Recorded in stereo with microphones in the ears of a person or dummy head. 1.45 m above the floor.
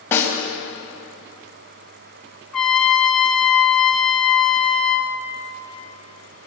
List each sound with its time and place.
0.1 s a snare drum: 10° left (ahead or behind), 4.5 m
2.5 s a trumpet: 5° left (ahead or behind), 3 m